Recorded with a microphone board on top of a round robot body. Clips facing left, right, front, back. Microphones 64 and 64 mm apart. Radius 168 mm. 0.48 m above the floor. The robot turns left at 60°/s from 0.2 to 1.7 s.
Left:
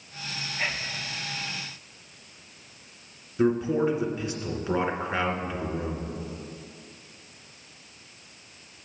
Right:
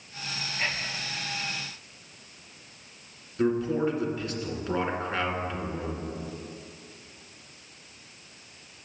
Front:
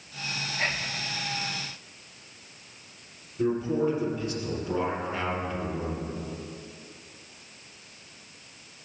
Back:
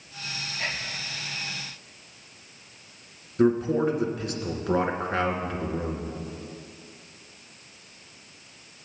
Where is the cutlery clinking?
I don't hear cutlery clinking.